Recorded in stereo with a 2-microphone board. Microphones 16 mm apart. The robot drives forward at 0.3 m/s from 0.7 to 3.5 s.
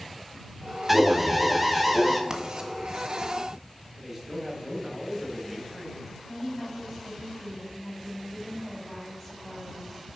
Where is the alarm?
15° right (ahead or behind), 1.0 m; by 2.2 s 10° right (ahead or behind), 1.3 m.